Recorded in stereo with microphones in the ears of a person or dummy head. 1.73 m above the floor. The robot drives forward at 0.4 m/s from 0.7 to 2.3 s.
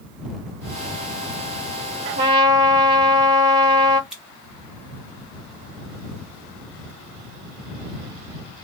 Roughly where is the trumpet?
Right.